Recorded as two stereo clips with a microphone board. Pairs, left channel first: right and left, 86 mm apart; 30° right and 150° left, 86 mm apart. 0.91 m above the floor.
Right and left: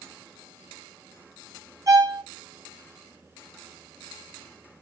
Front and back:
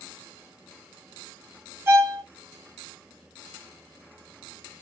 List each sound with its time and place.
1.9 s a violin: 110° left, 0.9 m